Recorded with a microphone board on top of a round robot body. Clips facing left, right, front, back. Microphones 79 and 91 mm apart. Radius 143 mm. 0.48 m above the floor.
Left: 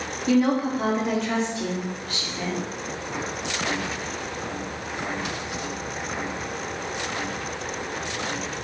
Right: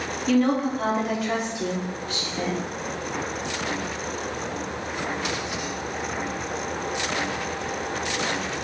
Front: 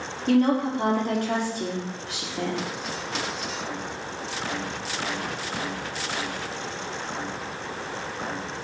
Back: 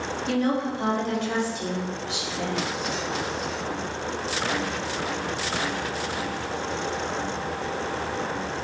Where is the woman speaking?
15° left, 1.8 m; by 2.6 s 40° right, 1.9 m.